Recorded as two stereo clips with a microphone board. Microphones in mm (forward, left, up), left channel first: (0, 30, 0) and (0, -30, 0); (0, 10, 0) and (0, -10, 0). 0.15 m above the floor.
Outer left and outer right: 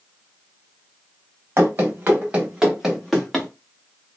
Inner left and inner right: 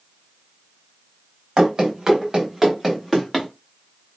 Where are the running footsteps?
40° right (ahead or behind), 1.2 m; by 3.5 s 5° left (ahead or behind), 1.2 m.